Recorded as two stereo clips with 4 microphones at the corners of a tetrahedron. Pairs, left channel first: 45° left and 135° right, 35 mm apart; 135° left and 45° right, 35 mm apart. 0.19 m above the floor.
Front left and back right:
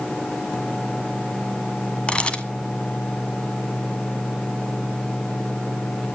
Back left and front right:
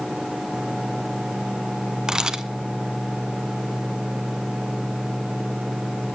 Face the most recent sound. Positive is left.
turn(degrees=10)